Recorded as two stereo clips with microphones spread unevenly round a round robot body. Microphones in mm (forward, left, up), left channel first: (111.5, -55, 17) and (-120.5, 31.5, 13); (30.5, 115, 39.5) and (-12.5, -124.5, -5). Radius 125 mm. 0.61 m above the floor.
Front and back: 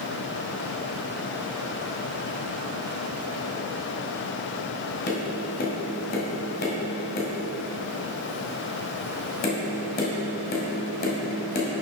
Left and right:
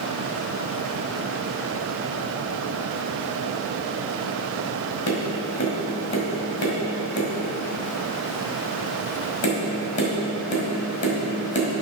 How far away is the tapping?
About 2 m.